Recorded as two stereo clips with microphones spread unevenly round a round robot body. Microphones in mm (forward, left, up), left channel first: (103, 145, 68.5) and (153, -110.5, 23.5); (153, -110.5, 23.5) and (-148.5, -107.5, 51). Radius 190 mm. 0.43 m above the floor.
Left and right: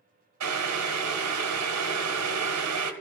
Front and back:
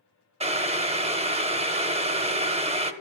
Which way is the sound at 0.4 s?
110° right.